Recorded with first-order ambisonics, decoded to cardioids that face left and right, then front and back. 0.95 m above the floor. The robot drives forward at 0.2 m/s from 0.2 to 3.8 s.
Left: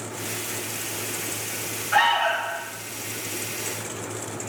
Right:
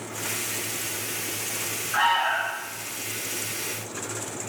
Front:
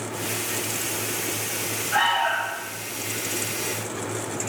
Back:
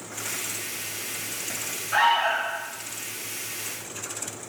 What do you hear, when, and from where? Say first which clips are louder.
1.9 s an alarm: left 2 dB, back 1 dB; 110° left, 3 m